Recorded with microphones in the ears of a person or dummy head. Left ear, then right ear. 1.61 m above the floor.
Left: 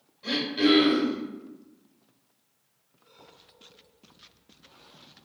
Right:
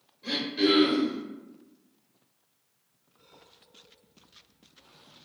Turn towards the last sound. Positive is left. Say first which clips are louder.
# left 2 dB
turn(degrees=10)  # may be behind; listen again after turning